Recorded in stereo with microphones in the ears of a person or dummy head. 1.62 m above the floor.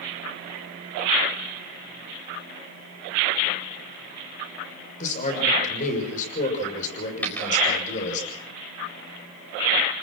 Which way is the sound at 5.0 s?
40° left (ahead or behind).